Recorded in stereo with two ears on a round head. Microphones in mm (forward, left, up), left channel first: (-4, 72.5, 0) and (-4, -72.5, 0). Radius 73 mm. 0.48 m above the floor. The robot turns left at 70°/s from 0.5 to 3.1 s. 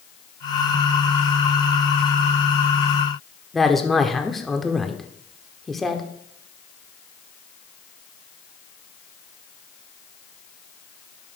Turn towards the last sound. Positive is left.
turn(degrees=0)  # may be behind; listen again after turning